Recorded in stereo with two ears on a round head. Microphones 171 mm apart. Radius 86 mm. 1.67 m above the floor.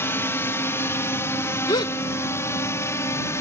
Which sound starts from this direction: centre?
A drone, at 0.0 s.